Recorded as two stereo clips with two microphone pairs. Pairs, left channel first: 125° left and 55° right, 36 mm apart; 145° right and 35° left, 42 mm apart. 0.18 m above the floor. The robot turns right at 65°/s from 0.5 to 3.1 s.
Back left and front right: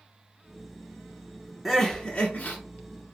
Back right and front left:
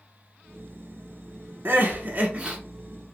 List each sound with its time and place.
1.6 s crying: 35° left, 0.9 m; by 2.6 s 95° left, 0.9 m